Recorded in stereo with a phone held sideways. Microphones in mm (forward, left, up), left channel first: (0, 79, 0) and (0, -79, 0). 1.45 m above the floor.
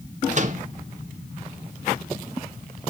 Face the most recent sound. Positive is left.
turn(degrees=-50)  # may be behind; listen again after turning